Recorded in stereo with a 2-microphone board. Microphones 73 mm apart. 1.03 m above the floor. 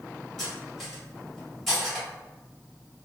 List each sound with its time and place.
0.4 s cutlery clinking: centre (ahead or behind), 1.2 m